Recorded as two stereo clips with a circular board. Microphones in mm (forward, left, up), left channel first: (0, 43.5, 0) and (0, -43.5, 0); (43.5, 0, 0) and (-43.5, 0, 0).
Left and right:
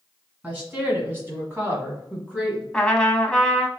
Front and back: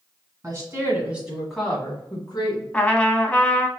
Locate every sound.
0.4 s a woman speaking: 150° right, 1.8 m; by 2.6 s 20° right, 1.8 m
2.7 s a trumpet: 30° left, 0.5 m